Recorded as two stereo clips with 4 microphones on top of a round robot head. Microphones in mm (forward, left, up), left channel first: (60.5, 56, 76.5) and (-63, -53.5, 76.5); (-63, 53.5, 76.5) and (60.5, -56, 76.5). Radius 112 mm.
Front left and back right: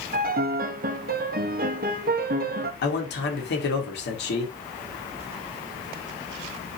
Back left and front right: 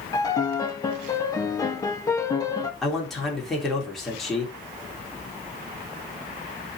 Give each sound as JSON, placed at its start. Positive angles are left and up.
{"t": 0.1, "sound": "a piano", "azimuth_deg": -155, "distance_m": 1.3}
{"t": 2.8, "sound": "a man speaking", "azimuth_deg": 50, "distance_m": 3.5}